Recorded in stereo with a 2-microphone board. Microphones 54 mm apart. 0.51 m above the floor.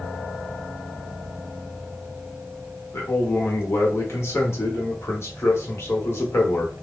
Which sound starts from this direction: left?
A man speaking, at 2.9 s.